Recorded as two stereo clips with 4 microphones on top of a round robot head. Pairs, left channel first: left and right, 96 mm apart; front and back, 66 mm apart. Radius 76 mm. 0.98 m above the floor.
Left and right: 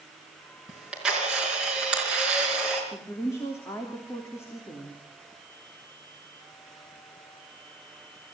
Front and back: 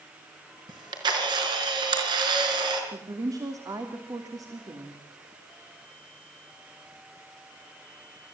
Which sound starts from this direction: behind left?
A woman speaking, at 2.9 s.